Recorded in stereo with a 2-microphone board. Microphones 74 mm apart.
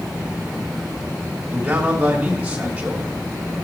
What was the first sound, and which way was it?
A man speaking, 20° right (ahead or behind).